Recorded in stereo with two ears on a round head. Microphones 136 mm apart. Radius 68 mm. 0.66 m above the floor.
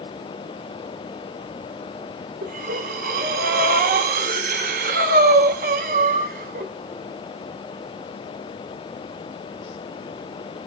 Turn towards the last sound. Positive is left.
turn(degrees=-65)  # may be behind; listen again after turning